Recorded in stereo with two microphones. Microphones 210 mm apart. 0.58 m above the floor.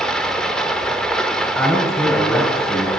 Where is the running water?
5° left (ahead or behind), 0.8 m.